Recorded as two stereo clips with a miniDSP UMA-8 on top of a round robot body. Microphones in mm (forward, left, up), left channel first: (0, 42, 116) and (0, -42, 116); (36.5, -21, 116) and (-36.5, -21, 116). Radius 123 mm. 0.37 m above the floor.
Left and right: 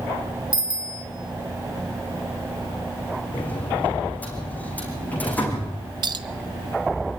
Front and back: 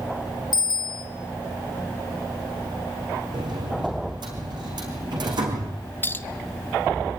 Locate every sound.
0.5 s a bicycle bell: 10° right, 3.5 m
3.3 s a sliding door: 165° left, 5 m
6.0 s a clink: 60° right, 1.3 m